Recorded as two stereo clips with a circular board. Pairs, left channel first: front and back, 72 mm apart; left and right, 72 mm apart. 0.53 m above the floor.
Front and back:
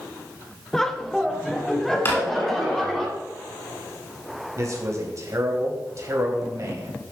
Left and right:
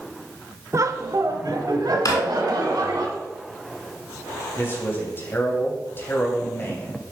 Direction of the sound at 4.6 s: 145° left.